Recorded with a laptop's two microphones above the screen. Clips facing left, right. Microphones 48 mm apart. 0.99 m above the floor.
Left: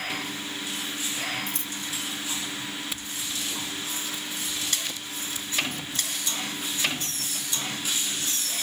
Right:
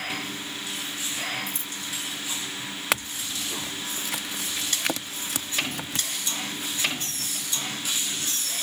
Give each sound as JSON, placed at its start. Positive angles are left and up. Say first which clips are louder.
{"t": 1.5, "sound": "scissors", "louder": "left 1 dB", "side_deg": 60}
{"t": 2.9, "sound": "a clink", "louder": "right 6 dB", "side_deg": -75}